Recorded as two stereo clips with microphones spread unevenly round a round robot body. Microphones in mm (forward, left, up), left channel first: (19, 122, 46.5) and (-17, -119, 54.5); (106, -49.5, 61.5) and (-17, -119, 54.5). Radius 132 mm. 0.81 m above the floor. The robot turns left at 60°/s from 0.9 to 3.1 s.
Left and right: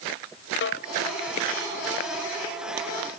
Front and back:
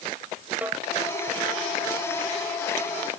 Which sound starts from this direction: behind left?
A snare drum, at 0.6 s.